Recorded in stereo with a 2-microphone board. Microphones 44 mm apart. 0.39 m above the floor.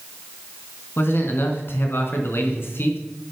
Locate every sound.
1.0 s a man speaking: 60° left (ahead or behind), 3.5 m